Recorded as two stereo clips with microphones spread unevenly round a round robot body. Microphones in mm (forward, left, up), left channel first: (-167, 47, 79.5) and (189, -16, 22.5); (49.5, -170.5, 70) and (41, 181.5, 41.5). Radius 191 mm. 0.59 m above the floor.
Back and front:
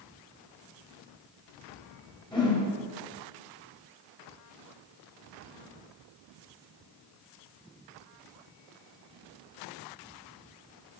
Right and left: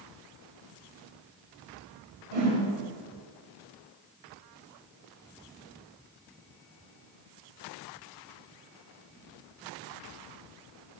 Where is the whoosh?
90° left, 3 m.